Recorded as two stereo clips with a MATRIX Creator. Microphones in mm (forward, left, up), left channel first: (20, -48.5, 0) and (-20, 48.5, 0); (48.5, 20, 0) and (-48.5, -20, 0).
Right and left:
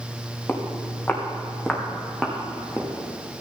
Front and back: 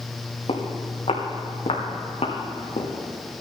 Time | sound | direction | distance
0.5 | footsteps | 5° left | 2.5 m